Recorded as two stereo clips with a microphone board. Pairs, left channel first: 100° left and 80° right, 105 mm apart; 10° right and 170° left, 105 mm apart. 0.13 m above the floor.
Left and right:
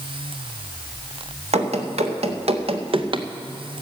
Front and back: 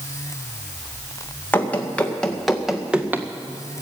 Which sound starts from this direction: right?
Running footsteps, at 1.5 s.